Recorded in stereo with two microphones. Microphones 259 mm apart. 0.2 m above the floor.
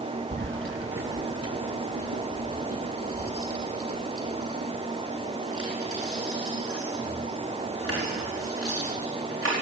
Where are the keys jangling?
45° right (ahead or behind), 1.5 m; by 9.5 s 55° right (ahead or behind), 13 m.